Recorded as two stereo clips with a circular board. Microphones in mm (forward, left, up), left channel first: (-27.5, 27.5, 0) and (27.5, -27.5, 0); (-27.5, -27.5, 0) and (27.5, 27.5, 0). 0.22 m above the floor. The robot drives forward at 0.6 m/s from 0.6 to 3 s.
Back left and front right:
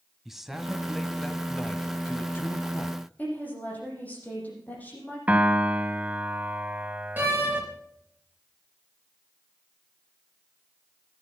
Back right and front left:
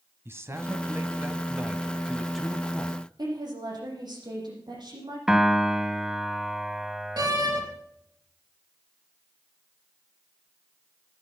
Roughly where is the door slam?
Ahead.